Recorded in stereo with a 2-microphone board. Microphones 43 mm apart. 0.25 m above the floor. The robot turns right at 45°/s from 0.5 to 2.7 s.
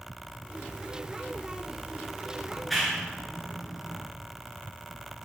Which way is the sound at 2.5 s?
10° left (ahead or behind).